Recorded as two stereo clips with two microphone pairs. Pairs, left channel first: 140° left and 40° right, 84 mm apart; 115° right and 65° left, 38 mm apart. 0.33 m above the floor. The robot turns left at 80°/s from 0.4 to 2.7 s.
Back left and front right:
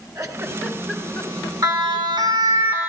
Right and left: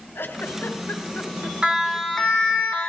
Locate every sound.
0.1 s a giggle: 90° right, 1.6 m; by 2.6 s 95° left, 1.6 m
1.6 s a siren: 5° right, 4 m; by 2.9 s 110° right, 3.5 m